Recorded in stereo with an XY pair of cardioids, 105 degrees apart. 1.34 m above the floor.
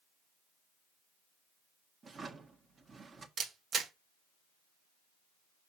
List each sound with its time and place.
2.0 s a drawer: 40° right, 1.4 m
3.4 s a camera shutter: 60° right, 1.2 m